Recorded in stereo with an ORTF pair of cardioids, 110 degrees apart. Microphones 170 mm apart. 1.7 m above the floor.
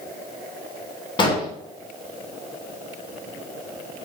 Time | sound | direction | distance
1.2 | an explosion | 30° left | 0.7 m